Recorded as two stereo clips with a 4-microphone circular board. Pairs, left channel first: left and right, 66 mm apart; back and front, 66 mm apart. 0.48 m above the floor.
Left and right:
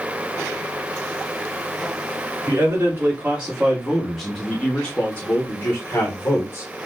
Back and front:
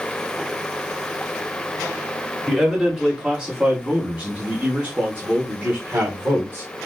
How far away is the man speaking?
About 1.5 m.